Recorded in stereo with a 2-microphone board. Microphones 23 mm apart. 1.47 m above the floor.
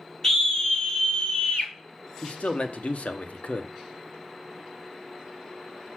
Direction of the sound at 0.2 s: 20° left (ahead or behind).